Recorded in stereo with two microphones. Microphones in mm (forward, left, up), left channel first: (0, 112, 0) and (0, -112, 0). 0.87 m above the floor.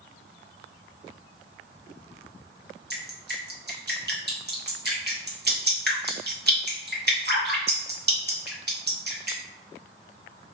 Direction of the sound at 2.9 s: 45° right (ahead or behind).